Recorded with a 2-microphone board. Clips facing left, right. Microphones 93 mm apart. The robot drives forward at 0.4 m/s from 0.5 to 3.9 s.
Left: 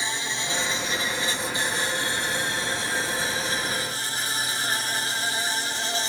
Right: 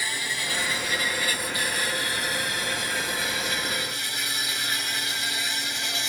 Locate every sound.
0.0 s an insect: 25° left (ahead or behind); by 6.1 s 30° left (ahead or behind)